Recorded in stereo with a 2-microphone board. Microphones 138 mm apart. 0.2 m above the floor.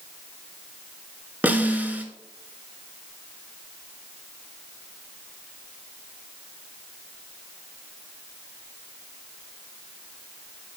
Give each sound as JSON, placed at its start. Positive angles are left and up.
{"t": 1.4, "sound": "a snare drum", "side_deg": -10, "distance_m": 1.1}